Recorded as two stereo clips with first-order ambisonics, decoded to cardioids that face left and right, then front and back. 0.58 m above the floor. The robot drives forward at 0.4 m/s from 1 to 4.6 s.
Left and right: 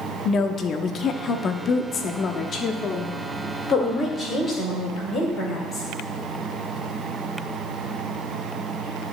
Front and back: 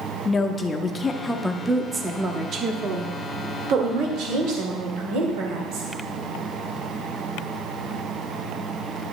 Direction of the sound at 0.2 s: 60° left.